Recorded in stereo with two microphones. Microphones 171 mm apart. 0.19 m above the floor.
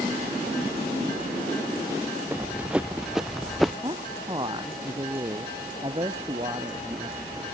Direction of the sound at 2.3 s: 10° right (ahead or behind).